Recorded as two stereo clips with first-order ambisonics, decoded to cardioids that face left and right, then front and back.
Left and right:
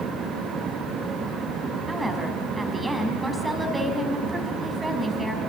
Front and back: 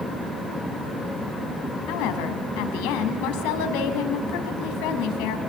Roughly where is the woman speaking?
Ahead.